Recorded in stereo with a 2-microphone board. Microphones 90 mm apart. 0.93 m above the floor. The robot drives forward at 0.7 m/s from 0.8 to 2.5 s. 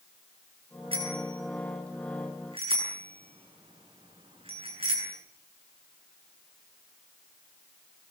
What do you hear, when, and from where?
0.9 s a bicycle bell: 80° right, 8.5 m; by 5.1 s 90° right, 8.5 m